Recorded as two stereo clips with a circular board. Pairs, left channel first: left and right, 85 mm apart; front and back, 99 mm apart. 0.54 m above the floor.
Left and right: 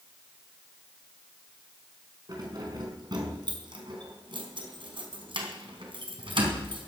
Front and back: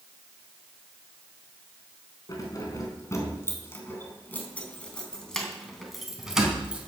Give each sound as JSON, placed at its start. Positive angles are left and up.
{"t": 2.3, "sound": "keys jangling", "azimuth_deg": -55, "distance_m": 4.0}